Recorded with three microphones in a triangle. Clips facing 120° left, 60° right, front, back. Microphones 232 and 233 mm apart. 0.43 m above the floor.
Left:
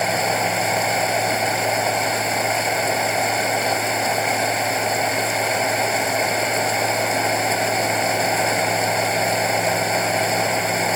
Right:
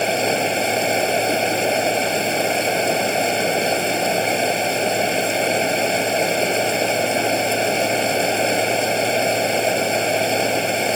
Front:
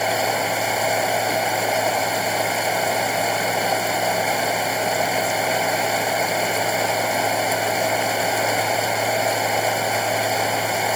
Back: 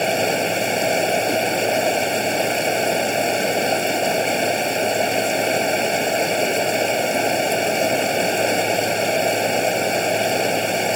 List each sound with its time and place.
0.0 s running water: 120° right